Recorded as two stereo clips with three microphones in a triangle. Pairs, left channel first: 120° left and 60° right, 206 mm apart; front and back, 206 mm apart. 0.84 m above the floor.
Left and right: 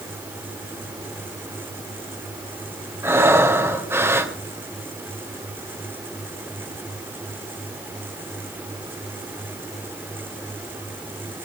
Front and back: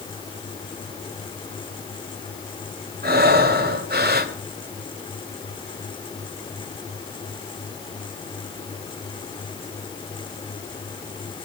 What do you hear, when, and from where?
3.0 s breathing: 135° right, 2 m